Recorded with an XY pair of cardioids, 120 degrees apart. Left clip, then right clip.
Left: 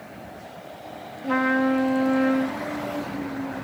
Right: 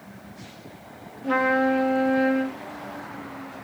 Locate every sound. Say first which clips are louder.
1.2 s a trumpet: right 1 dB; 5° left, 2 m